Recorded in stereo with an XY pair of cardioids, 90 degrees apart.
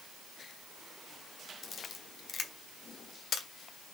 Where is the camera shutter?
55° left, 1.6 m.